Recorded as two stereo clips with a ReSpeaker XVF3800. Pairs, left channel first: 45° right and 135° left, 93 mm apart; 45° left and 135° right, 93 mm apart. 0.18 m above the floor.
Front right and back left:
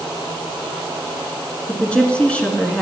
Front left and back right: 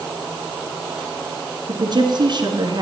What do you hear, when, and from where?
1.7 s a woman speaking: 120° right, 2.5 m